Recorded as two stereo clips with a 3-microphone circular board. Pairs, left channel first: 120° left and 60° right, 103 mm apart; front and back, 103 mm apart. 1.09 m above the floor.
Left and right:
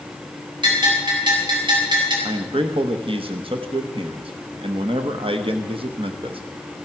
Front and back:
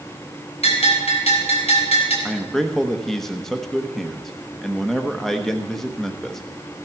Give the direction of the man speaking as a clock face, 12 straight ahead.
3 o'clock.